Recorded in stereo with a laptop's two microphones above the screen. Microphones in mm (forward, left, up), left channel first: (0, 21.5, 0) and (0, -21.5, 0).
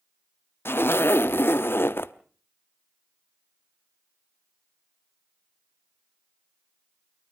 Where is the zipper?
60° left (ahead or behind), 0.8 m.